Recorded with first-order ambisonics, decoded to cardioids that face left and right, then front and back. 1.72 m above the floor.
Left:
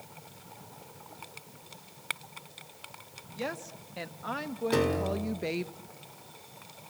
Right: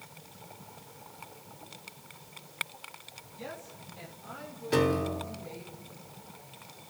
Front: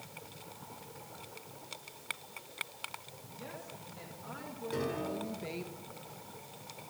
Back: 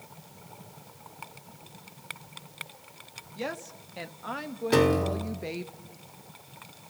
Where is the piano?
Straight behind, 2 m.